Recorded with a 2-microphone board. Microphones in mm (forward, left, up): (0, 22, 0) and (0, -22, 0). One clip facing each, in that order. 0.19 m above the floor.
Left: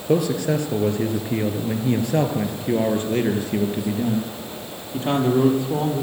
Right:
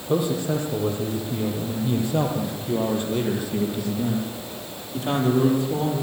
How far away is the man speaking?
About 4.5 m.